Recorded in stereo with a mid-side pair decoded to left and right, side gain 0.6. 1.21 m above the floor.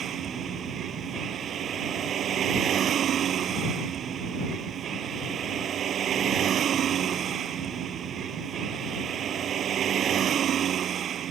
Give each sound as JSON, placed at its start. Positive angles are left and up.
{"t": 0.0, "sound": "a vehicle", "azimuth_deg": -45}